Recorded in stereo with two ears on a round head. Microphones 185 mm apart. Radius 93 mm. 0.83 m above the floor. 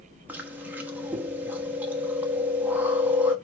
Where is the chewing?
10° right (ahead or behind), 1.2 m.